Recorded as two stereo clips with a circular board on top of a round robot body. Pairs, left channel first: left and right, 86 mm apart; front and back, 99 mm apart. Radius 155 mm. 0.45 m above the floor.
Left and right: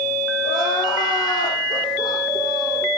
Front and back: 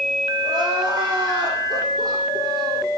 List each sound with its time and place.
0.4 s crying: 130° left, 10 m